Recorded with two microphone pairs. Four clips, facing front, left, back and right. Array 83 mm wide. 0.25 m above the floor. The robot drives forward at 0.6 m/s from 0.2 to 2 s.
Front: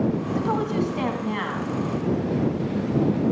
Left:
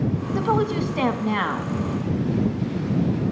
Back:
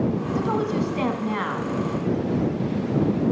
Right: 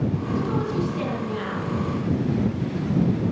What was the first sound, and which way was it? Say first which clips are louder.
A woman speaking: left 5 dB, back 1 dB; 80° left.